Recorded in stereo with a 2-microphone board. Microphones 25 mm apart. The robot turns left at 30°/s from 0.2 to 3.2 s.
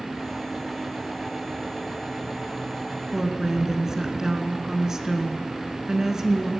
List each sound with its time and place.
3.1 s a woman speaking: 20° right (ahead or behind), 1.2 m; by 6.5 s 25° right (ahead or behind), 1.2 m